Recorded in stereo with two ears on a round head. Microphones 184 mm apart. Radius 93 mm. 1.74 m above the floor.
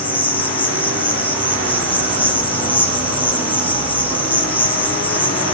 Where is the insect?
10° left (ahead or behind), 1.5 m.